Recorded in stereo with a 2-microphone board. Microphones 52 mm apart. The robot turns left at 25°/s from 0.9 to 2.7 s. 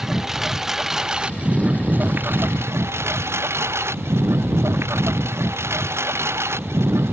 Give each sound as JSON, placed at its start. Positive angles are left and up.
{"t": 0.0, "sound": "a lawn mower", "azimuth_deg": -10}